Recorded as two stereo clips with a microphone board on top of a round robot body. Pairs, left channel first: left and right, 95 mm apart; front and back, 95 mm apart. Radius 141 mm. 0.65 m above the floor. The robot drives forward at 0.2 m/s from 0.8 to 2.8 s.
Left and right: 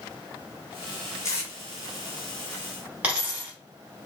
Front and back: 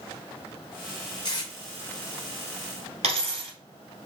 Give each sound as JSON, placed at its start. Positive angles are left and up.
{"t": 1.2, "sound": "tape being pulled", "azimuth_deg": 35, "distance_m": 1.1}
{"t": 3.0, "sound": "a dropped coin", "azimuth_deg": -170, "distance_m": 0.9}